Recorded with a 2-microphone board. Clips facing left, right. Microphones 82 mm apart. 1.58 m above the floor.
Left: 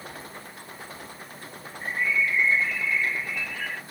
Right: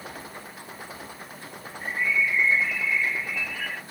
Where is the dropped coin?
I don't hear a dropped coin.